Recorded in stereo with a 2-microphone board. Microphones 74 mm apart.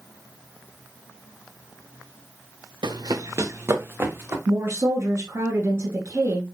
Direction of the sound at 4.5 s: 35° right (ahead or behind).